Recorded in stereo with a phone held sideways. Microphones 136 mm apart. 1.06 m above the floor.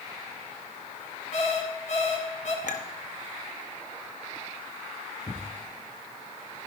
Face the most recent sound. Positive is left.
turn(degrees=35)  # may be behind; listen again after turning